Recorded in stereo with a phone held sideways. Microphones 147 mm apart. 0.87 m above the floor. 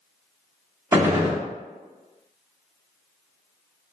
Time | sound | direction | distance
0.9 | a gunshot | 20° right (ahead or behind) | 0.8 m